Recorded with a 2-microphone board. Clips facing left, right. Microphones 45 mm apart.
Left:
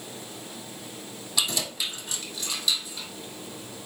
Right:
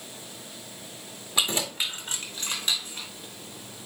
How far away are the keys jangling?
About 1.8 m.